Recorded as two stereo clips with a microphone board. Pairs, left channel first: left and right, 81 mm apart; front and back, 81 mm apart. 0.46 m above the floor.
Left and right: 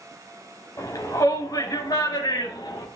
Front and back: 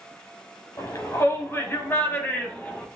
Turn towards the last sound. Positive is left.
turn(degrees=75)